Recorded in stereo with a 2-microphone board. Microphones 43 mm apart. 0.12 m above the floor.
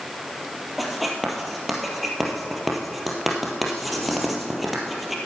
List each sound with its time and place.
0.8 s writing: centre (ahead or behind), 2.5 m